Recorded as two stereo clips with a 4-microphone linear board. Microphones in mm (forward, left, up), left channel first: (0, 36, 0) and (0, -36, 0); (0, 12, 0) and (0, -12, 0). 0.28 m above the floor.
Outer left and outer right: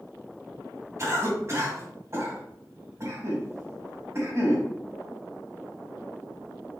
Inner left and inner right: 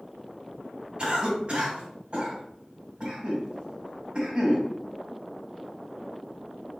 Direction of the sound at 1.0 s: 40° right (ahead or behind).